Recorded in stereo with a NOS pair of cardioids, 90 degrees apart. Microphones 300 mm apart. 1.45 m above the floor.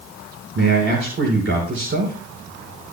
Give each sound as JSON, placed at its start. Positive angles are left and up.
{"t": 0.6, "sound": "a man speaking", "azimuth_deg": -45, "distance_m": 5.0}